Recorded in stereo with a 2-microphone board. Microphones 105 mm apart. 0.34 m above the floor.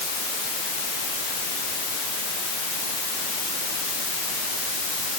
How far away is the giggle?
No giggle in this recording.